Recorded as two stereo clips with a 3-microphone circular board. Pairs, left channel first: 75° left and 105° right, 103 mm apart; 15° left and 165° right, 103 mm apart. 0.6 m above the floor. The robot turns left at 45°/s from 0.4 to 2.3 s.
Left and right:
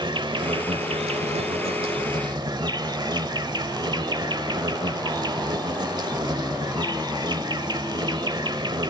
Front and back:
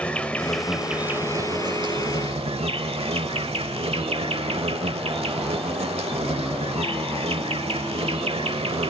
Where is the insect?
65° right, 1.0 m; by 8.9 s 150° right, 1.0 m.